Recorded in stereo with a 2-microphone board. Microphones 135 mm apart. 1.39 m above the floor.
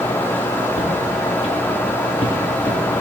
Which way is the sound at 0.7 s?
60° left (ahead or behind).